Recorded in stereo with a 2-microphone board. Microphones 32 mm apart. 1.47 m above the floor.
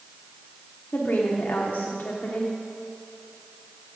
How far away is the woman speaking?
About 1.0 m.